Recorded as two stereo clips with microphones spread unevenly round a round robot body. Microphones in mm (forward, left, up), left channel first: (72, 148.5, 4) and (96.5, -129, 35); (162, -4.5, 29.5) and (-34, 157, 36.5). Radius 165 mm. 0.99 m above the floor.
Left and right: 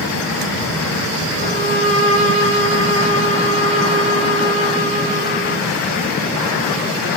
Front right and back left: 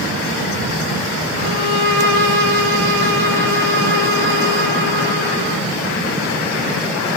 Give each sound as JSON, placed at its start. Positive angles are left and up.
{"t": 1.4, "sound": "a violin", "azimuth_deg": 170, "distance_m": 5.0}